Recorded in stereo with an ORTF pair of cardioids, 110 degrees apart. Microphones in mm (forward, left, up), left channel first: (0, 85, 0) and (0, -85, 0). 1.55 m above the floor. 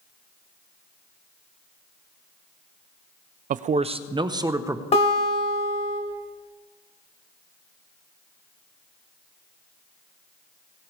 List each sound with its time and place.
3.5 s a man speaking: 50° right, 0.6 m; by 4.8 s 15° right, 1.2 m
4.9 s a guitar: 40° left, 3 m